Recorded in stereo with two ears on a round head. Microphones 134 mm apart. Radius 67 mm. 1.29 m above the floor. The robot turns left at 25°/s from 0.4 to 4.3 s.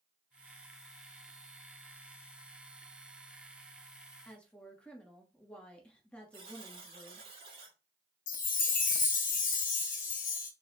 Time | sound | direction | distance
4.2 | a woman speaking | 10° left (ahead or behind) | 1.1 m
6.3 | a buzzer | 35° right (ahead or behind) | 1.7 m
8.3 | a chime | 60° left (ahead or behind) | 0.9 m